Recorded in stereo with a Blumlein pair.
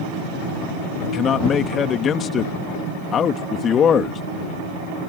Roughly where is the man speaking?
Ahead left.